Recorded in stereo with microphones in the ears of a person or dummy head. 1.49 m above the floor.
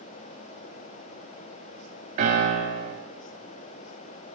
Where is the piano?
45° right (ahead or behind), 3 m.